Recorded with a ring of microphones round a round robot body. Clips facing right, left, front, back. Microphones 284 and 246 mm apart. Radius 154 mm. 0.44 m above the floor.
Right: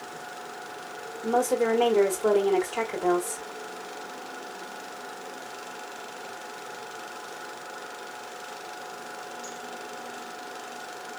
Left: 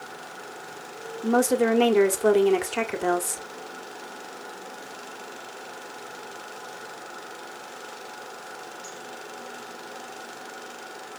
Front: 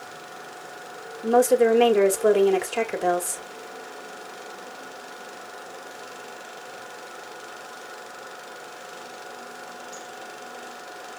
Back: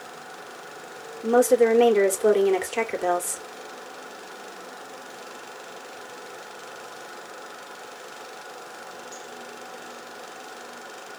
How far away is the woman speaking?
About 1.7 m.